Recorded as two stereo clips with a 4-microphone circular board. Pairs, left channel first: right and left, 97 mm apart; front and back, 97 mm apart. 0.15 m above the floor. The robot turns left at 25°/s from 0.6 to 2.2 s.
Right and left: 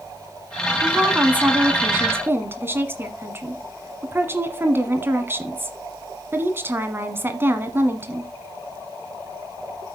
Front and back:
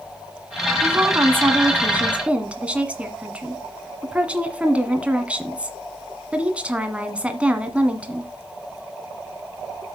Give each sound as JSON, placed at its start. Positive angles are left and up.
{"t": 0.8, "sound": "a woman speaking", "azimuth_deg": 155, "distance_m": 1.4}